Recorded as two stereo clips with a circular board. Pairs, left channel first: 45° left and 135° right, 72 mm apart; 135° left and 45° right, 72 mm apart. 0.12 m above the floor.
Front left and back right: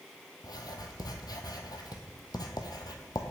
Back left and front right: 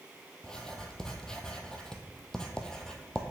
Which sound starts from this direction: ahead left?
Writing, at 0.4 s.